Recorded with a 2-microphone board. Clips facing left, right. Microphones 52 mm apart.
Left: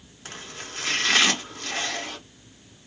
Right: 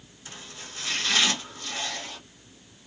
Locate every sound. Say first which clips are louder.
0.2 s chopping: left 5 dB; 80° left, 1.9 m